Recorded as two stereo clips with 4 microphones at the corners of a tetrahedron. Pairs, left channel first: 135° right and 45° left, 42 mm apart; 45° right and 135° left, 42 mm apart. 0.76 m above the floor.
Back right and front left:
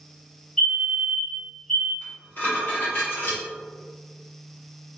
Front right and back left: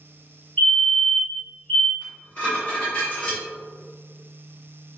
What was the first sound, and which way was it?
A fire alarm, 50° right.